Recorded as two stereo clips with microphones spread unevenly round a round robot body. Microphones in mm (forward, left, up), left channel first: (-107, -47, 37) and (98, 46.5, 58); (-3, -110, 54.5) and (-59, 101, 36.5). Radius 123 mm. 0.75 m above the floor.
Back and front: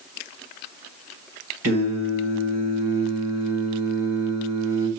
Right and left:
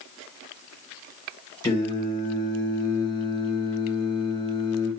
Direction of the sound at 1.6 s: Straight ahead.